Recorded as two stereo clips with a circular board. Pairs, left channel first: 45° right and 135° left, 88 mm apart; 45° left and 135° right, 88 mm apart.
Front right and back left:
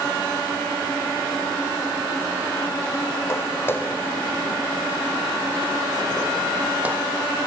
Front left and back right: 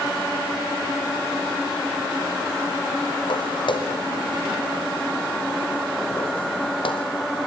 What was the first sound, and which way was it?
Footsteps, 15° left.